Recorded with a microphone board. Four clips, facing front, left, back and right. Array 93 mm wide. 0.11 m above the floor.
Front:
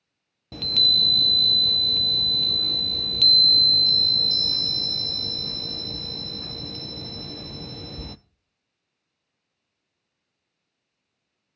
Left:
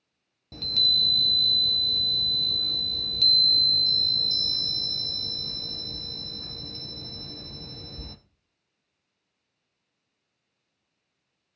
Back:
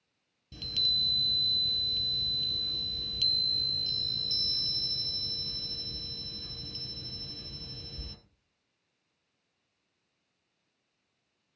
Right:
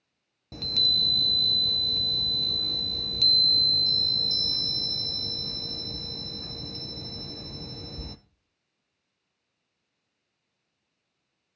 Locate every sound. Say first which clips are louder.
0.5 s a chime: left 1 dB, front 10 dB; 10° right, 0.6 m